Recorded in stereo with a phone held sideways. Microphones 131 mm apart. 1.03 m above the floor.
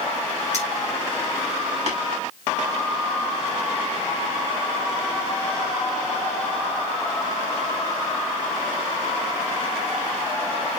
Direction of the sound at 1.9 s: 55° right (ahead or behind).